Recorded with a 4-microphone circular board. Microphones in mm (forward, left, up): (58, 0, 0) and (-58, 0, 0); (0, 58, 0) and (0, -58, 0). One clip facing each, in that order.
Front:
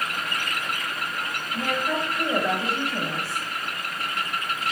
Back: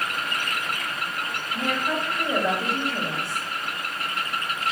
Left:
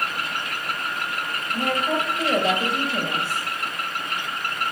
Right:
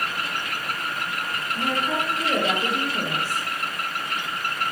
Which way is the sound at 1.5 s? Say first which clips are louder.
Even, left 2 dB; 90° left.